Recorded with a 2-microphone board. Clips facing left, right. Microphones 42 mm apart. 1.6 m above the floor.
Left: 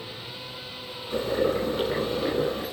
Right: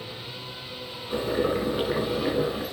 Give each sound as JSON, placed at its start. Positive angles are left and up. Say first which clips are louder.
{"t": 1.1, "sound": "boiling", "louder": "left 1 dB", "side_deg": -15, "distance_m": 2.5}